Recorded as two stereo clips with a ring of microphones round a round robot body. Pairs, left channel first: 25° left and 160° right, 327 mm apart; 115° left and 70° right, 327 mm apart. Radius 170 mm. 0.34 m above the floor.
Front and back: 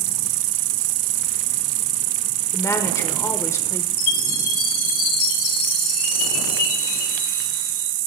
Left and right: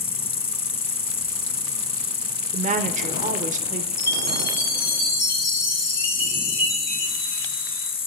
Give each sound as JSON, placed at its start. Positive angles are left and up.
{"t": 0.0, "sound": "an insect", "azimuth_deg": -175, "distance_m": 0.7}
{"t": 2.5, "sound": "a woman speaking", "azimuth_deg": -45, "distance_m": 0.8}
{"t": 4.0, "sound": "a chime", "azimuth_deg": 55, "distance_m": 7.5}